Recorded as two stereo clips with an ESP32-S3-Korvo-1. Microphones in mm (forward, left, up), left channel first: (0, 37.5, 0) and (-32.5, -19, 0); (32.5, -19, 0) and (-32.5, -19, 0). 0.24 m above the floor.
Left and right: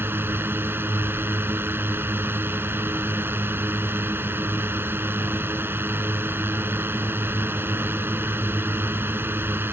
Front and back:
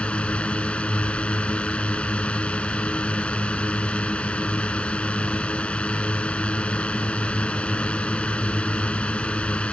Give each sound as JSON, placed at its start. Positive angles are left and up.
{"t": 0.0, "sound": "a drone", "azimuth_deg": -70}